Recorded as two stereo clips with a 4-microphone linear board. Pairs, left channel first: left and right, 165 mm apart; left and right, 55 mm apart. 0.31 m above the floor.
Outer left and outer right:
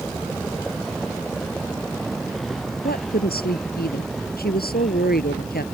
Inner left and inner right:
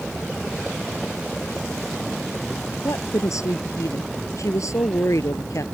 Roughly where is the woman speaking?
Left.